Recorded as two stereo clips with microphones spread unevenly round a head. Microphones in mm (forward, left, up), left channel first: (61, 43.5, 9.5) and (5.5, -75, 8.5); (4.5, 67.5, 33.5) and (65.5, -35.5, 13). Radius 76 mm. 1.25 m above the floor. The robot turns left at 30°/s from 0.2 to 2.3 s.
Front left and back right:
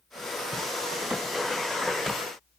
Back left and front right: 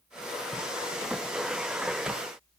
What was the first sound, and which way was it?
Only background noise.